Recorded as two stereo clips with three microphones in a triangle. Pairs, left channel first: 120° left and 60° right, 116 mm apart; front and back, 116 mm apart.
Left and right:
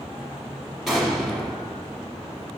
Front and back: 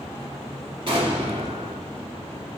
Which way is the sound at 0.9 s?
150° right.